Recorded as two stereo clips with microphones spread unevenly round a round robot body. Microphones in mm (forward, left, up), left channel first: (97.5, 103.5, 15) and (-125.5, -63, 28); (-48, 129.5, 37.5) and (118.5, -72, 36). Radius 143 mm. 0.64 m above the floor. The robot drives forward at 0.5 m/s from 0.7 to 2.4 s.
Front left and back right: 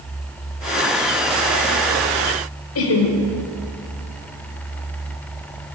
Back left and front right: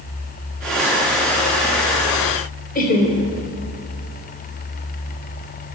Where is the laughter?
70° left, 2 m.